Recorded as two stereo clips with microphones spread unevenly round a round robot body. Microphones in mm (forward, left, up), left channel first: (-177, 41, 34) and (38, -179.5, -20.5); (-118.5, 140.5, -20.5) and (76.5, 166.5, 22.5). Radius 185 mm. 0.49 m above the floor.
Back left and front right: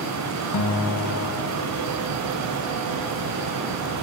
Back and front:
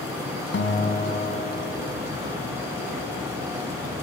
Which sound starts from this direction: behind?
A guitar, at 0.5 s.